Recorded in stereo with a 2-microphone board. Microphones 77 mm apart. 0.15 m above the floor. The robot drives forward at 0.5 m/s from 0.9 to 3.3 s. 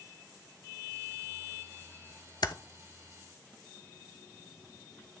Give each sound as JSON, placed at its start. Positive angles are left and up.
{"t": 2.4, "sound": "typing on a keyboard", "side_deg": 70, "distance_m": 0.7}